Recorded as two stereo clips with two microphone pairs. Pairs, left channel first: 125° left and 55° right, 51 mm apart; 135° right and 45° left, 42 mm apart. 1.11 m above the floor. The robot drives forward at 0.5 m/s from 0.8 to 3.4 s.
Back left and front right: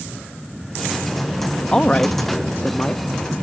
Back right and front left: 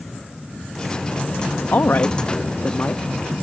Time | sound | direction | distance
1.7 | a woman speaking | 165° right | ?